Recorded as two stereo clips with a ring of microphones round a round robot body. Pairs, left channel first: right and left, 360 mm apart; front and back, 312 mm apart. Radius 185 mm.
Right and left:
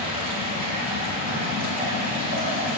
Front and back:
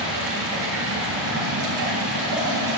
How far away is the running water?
About 6 m.